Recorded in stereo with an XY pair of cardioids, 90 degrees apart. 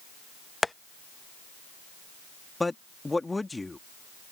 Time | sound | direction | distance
0.6 | tapping | 15° left | ?
2.6 | a man speaking | 20° left | ?